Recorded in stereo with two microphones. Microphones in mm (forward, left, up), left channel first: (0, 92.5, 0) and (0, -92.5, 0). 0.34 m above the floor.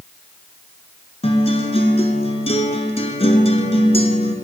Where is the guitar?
35° left (ahead or behind), 1.3 m.